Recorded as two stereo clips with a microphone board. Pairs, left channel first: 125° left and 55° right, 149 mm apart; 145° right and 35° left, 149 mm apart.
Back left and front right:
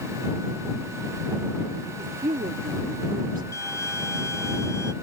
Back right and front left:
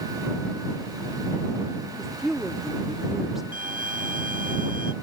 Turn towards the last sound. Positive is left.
turn(degrees=55)